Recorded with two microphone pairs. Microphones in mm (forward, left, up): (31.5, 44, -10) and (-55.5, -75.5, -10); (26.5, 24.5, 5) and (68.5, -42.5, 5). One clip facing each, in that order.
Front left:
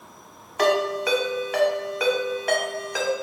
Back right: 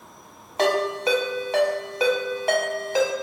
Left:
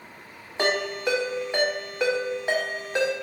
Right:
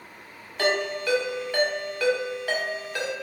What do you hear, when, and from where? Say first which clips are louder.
0.6 s a ringtone: front left 1 dB, even; 175° right, 0.9 m